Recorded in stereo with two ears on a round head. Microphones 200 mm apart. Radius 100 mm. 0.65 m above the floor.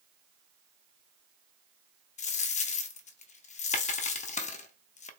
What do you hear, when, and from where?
2.2 s a dropped coin: 30° left (ahead or behind), 0.5 m